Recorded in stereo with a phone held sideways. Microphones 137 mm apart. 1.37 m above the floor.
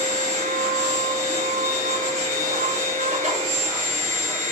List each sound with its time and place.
0.0 s a machine running: 55° right (ahead or behind), 1.0 m